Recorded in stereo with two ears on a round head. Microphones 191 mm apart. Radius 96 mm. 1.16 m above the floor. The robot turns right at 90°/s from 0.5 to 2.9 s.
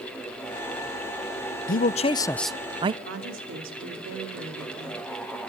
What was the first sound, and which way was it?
A man speaking, 105° left.